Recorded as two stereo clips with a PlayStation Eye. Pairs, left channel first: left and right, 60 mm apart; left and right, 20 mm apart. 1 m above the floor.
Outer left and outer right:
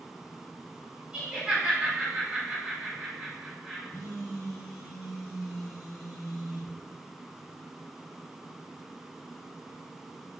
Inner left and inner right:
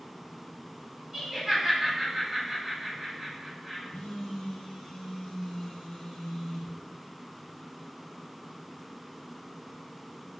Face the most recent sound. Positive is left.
turn(degrees=75)  # may be behind; listen again after turning